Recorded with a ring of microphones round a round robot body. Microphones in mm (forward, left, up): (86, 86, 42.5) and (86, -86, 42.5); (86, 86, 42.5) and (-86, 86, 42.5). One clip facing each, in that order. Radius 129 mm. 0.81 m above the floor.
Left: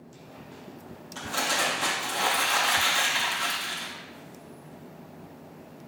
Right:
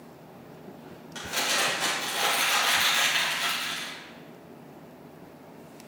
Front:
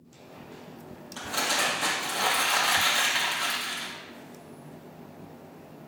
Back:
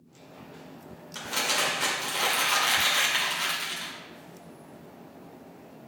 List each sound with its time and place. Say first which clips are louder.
1.1 s crumpling: left 2 dB, front 1 dB; 140° right, 1.9 m